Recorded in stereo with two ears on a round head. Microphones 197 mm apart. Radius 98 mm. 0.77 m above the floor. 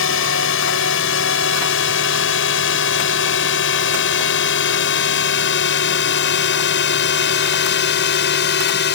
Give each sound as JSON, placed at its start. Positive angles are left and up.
{"t": 0.0, "sound": "a drone", "side_deg": 65}